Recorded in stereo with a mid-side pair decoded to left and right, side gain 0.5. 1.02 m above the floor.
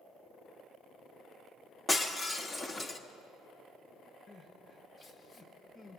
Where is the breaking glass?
25° left, 1.3 m.